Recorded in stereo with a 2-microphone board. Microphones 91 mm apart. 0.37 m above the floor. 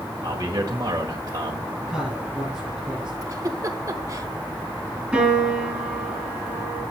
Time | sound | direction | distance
0.2 | a man speaking | 40° right (ahead or behind) | 1.6 m
1.9 | a man speaking | 5° right (ahead or behind) | 7.5 m
3.2 | a giggle | 40° right (ahead or behind) | 1.3 m
5.1 | a piano | 5° right (ahead or behind) | 8 m